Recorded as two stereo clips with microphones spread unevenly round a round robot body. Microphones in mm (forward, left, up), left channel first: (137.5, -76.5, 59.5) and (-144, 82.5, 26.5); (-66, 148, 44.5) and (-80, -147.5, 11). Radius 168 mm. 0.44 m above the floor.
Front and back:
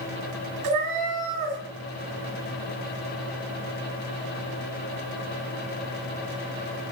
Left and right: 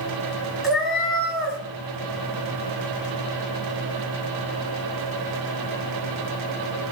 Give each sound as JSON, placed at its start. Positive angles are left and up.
{"t": 0.6, "sound": "a cat meowing", "azimuth_deg": 180, "distance_m": 1.8}